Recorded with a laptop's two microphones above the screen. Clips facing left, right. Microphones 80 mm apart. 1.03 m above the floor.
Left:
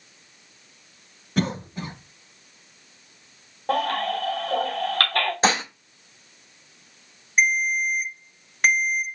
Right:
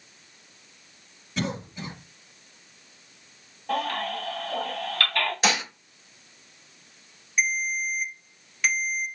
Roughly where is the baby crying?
Left.